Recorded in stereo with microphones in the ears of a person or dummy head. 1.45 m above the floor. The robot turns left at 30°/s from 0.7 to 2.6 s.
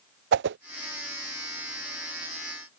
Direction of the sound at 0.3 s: 55° right (ahead or behind).